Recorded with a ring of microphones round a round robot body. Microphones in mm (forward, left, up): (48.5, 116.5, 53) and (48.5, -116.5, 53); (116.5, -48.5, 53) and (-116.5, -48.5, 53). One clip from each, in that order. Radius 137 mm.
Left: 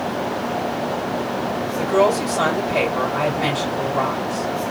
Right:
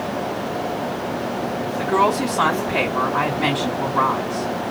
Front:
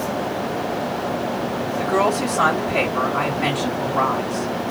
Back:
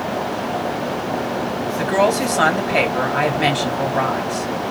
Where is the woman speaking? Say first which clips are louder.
Left 1 dB, back 2 dB; 155° left, 3 m.